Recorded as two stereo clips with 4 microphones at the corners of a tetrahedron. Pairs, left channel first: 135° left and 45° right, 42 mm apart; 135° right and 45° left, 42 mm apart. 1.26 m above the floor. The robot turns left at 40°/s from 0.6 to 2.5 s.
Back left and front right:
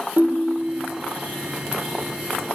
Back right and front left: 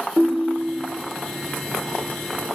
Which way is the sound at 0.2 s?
Straight ahead.